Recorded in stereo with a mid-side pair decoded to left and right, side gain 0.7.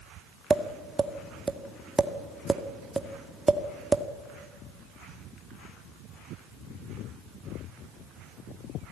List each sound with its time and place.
0.5 s tapping: 15° right, 1.9 m